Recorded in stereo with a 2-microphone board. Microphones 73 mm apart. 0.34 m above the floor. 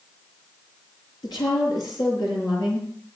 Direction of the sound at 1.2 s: 80° left.